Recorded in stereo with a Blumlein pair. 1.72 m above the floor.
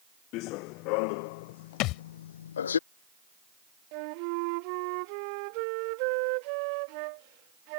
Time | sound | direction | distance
0.3 | running footsteps | 40° left | ?
1.8 | a thud | 40° left | ?
3.9 | a flute | 45° right | ?